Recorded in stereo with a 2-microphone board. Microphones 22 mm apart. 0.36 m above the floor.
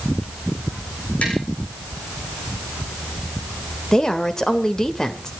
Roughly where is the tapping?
Left.